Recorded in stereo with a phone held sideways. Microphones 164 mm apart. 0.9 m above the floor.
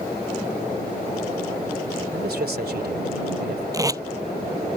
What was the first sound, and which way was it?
A man speaking, 75° right (ahead or behind).